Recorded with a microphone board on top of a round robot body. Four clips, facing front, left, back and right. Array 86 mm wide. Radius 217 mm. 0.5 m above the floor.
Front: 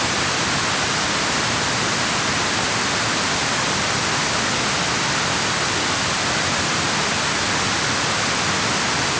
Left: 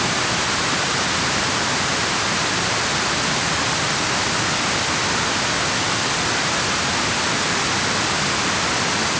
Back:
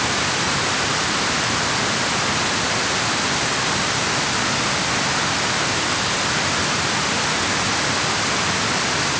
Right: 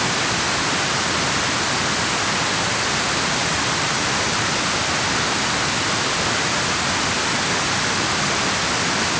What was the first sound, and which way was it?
Only background noise.